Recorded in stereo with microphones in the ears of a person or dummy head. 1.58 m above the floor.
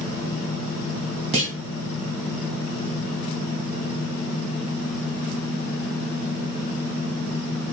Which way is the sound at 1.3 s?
25° right (ahead or behind).